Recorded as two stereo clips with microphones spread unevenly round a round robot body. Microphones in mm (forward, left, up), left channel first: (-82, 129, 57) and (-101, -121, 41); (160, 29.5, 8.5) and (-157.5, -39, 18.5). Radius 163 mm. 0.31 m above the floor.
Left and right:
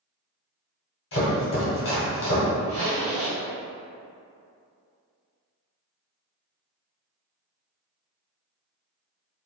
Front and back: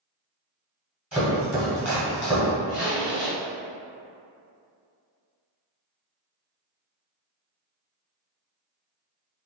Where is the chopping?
105° left, 1.6 m.